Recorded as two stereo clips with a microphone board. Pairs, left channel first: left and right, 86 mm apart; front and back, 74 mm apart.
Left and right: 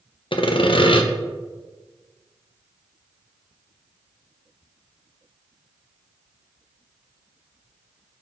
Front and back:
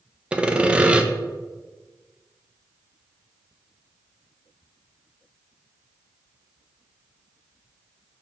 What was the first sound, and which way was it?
Sawing, 105° left.